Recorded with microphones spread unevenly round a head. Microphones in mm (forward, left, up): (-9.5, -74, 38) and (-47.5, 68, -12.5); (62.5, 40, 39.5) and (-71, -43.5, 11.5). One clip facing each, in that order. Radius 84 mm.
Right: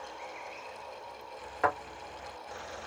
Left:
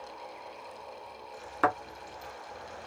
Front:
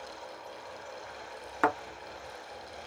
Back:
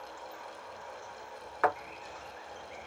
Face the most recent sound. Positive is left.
turn(degrees=65)